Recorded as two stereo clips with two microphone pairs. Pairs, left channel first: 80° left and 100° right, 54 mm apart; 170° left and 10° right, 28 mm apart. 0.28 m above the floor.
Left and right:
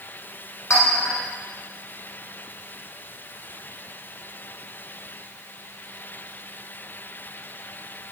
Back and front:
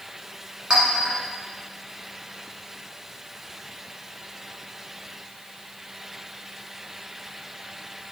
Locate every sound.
0.7 s a clink: 55° left, 1.5 m